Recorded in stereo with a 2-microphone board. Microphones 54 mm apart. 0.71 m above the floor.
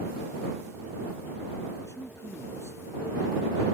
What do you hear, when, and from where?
1.9 s a man speaking: 55° left (ahead or behind)